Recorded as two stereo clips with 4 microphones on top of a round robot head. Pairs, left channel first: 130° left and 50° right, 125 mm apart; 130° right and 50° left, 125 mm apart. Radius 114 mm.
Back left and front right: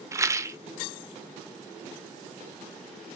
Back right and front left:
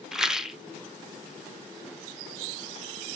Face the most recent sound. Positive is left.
turn(degrees=-25)